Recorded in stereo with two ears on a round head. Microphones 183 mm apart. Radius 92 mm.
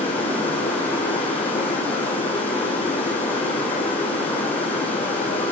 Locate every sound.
0.0 s running water: 10° left (ahead or behind), 8.5 m